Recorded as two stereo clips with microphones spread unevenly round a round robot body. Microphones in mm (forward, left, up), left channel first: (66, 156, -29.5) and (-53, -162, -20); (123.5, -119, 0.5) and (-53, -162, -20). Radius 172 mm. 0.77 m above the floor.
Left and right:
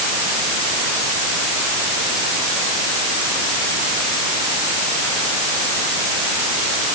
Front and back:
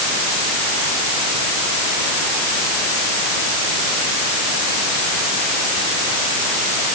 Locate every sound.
Only background noise.